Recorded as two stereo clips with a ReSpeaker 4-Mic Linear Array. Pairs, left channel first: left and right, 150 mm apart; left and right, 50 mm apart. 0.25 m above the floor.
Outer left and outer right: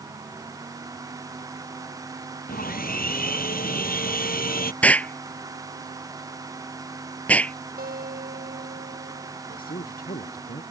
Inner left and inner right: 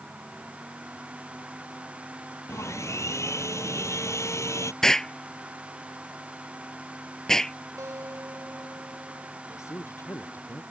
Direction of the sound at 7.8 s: 90° right.